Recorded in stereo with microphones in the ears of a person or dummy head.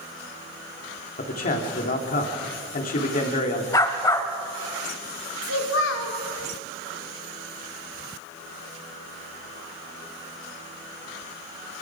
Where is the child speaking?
70° left (ahead or behind), 3 m.